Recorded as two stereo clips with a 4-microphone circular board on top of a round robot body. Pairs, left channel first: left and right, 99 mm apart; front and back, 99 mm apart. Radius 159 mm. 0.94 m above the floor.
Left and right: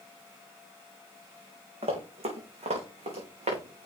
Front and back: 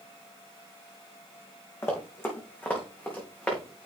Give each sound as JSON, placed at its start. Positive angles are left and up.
{"t": 1.8, "sound": "running footsteps", "azimuth_deg": -65, "distance_m": 3.0}